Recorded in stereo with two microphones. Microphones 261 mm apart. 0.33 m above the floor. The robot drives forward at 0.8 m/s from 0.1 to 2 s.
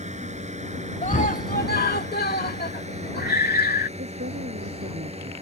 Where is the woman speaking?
45° right (ahead or behind).